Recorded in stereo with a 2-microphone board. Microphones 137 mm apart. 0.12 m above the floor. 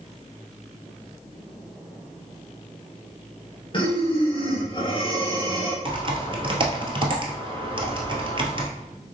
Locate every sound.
3.7 s breathing: 40° left (ahead or behind), 1.5 m
5.8 s typing on a keyboard: 40° right (ahead or behind), 1.0 m